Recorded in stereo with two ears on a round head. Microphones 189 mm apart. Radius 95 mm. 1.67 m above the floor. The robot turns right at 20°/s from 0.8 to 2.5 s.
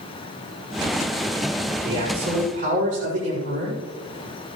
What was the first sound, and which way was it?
A man speaking, 20° right (ahead or behind).